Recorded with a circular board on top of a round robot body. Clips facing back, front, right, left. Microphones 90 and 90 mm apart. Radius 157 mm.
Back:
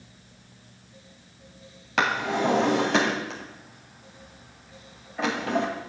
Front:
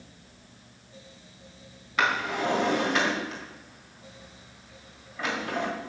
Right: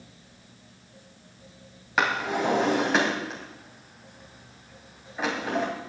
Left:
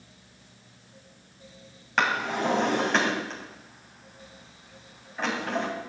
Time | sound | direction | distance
2.0 | a drawer | 170° right | 2.5 m